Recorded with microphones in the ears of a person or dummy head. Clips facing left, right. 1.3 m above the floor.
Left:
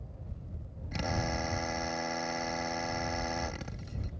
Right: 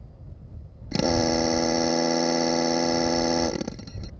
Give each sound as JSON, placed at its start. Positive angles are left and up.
{"t": 0.9, "sound": "a drill", "side_deg": -65}